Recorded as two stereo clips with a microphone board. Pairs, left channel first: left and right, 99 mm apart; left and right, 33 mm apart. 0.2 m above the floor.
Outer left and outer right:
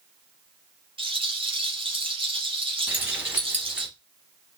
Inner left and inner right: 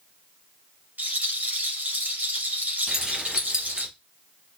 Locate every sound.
1.0 s a rattle: 60° right (ahead or behind), 1.8 m
2.9 s keys jangling: 20° right (ahead or behind), 1.0 m